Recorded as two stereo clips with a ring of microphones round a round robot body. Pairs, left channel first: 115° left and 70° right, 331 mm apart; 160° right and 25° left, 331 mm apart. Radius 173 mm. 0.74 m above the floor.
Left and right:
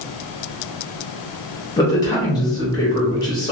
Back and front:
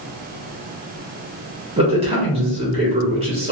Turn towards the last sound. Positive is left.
turn(degrees=55)